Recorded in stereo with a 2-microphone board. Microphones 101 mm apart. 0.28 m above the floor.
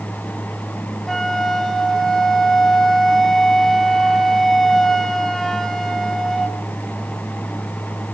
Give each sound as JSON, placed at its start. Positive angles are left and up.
{"t": 1.1, "sound": "a flute", "side_deg": 5, "distance_m": 1.2}